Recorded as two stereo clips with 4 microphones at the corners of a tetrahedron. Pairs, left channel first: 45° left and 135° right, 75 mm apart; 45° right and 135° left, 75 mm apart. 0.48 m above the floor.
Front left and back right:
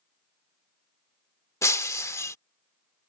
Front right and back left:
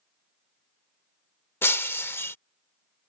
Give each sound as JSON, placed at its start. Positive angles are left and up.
{"t": 1.6, "sound": "breaking glass", "azimuth_deg": 5}